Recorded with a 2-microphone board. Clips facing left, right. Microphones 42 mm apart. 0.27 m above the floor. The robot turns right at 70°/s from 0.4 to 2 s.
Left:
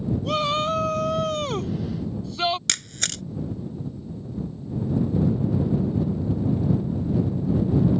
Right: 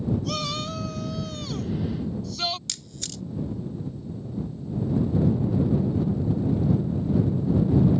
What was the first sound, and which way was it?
A shout, 35° left.